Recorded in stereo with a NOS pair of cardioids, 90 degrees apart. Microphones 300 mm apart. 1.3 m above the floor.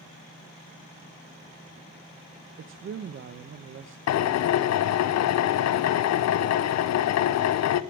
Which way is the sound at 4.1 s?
65° left.